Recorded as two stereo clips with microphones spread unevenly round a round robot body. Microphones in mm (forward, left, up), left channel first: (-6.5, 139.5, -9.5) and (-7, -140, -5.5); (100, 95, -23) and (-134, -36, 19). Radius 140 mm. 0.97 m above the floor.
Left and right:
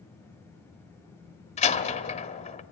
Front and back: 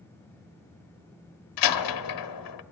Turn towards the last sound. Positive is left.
turn(degrees=20)